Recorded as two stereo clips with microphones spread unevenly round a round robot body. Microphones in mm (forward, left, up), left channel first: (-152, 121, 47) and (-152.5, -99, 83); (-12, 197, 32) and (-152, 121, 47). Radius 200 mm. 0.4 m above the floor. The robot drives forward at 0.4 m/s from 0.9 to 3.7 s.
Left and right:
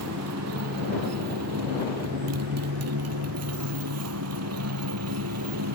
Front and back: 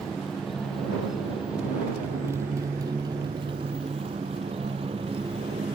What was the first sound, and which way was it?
A motorcycle, 60° right.